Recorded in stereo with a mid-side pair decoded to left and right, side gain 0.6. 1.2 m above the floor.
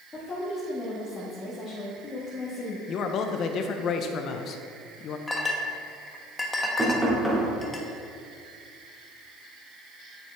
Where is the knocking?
10° right, 2 m.